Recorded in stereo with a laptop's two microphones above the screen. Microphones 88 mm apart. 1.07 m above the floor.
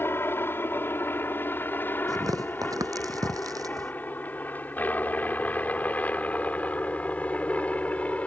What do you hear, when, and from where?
0.0 s a helicopter: 25° left (ahead or behind); by 8.3 s 15° left (ahead or behind)
2.1 s tearing paper: 45° right (ahead or behind)